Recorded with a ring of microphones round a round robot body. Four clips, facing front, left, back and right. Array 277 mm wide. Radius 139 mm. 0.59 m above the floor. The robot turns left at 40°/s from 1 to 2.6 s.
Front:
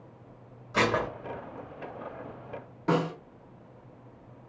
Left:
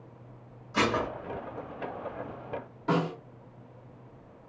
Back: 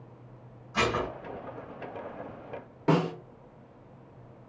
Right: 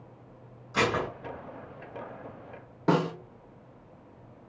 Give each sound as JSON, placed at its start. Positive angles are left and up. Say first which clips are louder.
{"t": 0.7, "sound": "dishes clattering", "louder": "even, front 2 dB", "azimuth_deg": -10, "distance_m": 1.2}
{"t": 2.9, "sound": "a snare drum", "louder": "right 3 dB, back 1 dB", "azimuth_deg": -115, "distance_m": 0.8}